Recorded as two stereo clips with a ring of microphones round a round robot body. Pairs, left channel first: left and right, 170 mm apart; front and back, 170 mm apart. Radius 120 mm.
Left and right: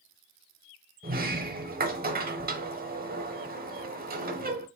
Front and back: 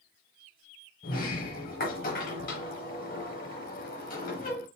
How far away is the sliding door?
About 0.9 m.